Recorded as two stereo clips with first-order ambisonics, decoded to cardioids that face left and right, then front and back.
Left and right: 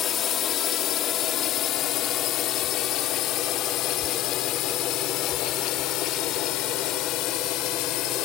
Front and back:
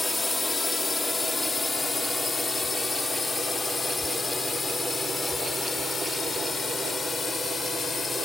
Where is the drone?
75° left; by 8.3 s 70° left.